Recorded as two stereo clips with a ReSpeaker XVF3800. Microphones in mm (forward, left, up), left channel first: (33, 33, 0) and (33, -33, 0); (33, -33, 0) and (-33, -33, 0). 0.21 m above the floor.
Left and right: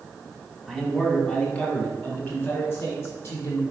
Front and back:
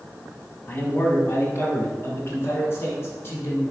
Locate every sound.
0.7 s a man speaking: 5° left, 1.5 m; by 3.6 s 50° left, 3 m